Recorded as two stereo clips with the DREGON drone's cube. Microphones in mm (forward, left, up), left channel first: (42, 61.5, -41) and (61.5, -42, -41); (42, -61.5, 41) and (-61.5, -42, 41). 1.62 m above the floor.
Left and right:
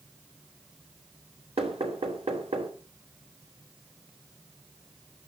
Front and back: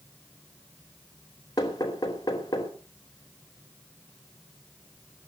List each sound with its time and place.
1.6 s knocking: 65° right, 4 m